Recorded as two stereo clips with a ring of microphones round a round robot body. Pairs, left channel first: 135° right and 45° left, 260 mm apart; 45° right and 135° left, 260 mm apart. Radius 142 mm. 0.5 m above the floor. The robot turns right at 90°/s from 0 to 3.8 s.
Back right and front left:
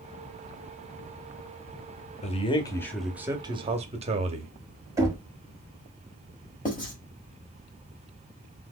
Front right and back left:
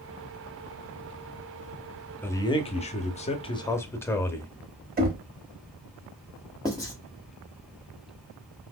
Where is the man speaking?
120° right, 0.7 m; by 4.5 s 25° left, 0.7 m.